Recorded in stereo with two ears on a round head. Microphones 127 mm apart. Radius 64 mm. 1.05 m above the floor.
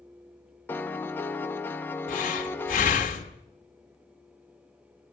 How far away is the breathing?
About 1.7 m.